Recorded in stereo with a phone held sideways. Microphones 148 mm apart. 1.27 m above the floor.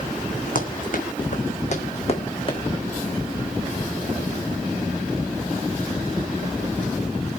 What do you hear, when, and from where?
0.6 s running footsteps: 65° left (ahead or behind), 3.5 m; by 2.6 s 35° left (ahead or behind), 3.5 m